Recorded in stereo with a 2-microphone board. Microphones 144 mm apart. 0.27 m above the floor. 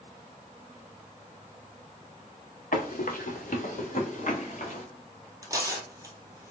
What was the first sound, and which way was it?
Running footsteps, 70° left (ahead or behind).